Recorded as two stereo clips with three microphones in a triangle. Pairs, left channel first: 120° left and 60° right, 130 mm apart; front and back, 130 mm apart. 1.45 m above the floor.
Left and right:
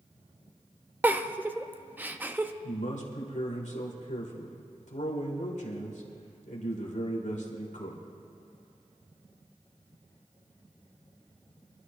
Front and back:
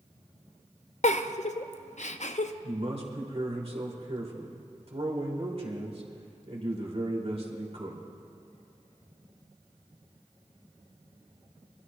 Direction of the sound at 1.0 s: 15° left.